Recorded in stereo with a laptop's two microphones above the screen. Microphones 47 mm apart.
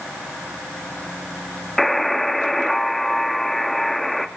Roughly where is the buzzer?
Centre.